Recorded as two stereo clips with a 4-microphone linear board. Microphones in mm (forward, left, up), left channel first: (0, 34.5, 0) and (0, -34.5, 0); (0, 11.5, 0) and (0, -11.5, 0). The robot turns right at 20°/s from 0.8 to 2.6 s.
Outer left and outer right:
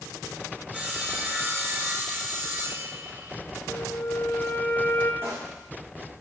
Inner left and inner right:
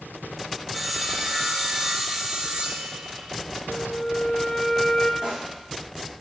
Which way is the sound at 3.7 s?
30° left (ahead or behind).